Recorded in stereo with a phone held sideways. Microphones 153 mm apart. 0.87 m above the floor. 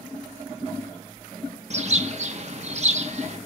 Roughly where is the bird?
Right.